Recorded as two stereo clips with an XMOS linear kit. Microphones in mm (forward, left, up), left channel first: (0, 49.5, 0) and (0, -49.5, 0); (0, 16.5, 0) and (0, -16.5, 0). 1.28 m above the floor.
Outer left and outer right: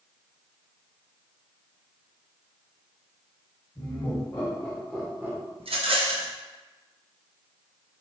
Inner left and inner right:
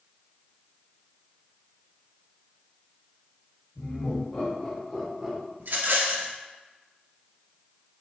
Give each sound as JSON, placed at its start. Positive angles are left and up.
{"t": 3.8, "sound": "laughter", "side_deg": 45, "distance_m": 1.7}
{"t": 5.6, "sound": "a rattle", "side_deg": -70, "distance_m": 0.6}